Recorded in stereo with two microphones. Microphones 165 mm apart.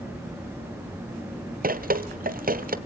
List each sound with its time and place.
1.6 s dripping: 60° right (ahead or behind), 0.9 m